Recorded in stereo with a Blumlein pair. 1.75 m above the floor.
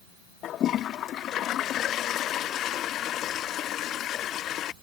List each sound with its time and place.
0.4 s a toilet flushing: 30° left